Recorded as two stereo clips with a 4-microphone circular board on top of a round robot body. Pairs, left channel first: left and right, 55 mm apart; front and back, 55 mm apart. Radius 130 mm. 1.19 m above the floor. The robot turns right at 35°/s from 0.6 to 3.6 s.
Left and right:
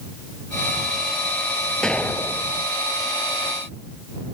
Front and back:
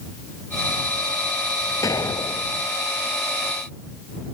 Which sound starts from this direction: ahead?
An explosion, at 1.8 s.